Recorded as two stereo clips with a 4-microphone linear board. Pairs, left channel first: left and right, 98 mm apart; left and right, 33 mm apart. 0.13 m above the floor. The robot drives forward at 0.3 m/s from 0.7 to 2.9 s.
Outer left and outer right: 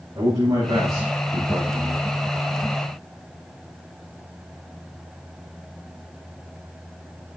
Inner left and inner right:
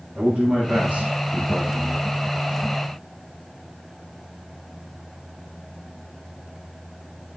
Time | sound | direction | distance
0.1 | a man speaking | 45° right (ahead or behind) | 6 m